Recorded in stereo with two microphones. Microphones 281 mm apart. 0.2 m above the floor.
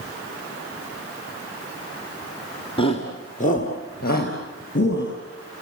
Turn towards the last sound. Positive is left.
turn(degrees=40)  # may be behind; listen again after turning